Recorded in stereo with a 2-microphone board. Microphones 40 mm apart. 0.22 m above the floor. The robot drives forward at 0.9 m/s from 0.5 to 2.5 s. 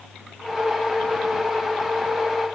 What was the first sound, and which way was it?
Only background noise.